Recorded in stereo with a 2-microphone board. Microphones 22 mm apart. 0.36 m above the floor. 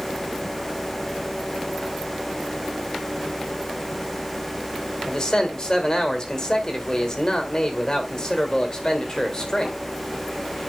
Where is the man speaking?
30° left (ahead or behind), 1.6 m.